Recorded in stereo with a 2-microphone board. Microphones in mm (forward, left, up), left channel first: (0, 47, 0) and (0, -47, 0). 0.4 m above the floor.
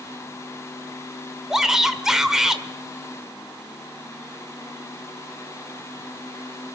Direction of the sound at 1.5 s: 5° right (ahead or behind).